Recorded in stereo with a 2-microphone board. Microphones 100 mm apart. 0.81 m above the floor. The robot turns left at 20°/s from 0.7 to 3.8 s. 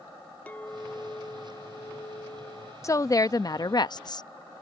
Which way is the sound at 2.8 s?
30° left (ahead or behind).